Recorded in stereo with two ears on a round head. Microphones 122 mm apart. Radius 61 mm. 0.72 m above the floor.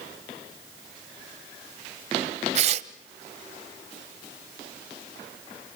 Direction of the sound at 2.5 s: 50° right (ahead or behind).